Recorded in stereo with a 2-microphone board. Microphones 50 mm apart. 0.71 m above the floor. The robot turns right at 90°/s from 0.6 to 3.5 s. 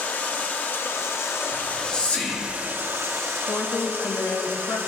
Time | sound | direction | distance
0.0 | running water | 40° left | 0.9 m
1.5 | whispering | 10° right (ahead or behind) | 1.8 m
3.5 | a woman speaking | 50° left (ahead or behind) | 0.8 m